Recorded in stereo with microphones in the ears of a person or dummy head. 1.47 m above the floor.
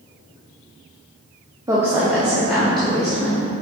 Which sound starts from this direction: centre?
A woman speaking, at 1.7 s.